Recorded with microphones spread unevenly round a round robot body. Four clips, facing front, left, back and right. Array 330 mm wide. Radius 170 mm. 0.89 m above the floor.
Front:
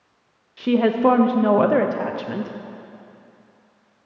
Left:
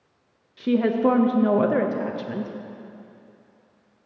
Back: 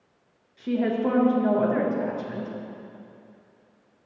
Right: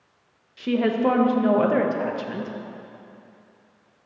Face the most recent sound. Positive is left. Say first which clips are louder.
# left 1 dB, front 7 dB
turn(degrees=30)